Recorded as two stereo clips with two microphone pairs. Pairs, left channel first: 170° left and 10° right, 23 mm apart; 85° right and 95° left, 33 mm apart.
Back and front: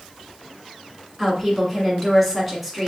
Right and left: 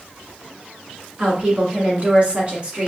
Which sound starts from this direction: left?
A woman speaking, at 1.2 s.